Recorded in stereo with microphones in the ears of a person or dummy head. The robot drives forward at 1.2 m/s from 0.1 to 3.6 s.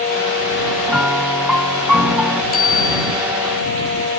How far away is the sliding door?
No sliding door in this recording.